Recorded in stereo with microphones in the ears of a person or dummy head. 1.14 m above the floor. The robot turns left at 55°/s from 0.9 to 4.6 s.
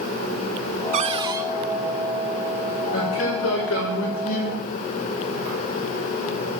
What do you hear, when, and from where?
0.9 s a cupboard door: 45° right (ahead or behind), 0.5 m; by 1.5 s 15° right (ahead or behind), 0.5 m
2.9 s a man speaking: 130° left, 5 m; by 4.6 s 40° left, 5 m